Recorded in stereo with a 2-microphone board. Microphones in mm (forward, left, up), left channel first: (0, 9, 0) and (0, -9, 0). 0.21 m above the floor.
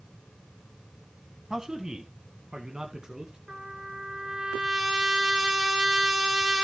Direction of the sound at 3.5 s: 65° right (ahead or behind).